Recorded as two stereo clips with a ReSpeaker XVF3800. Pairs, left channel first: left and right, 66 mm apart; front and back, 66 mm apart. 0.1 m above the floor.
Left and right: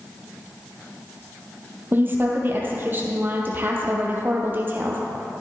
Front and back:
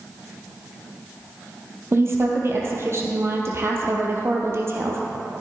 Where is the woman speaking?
140° right, 2 m.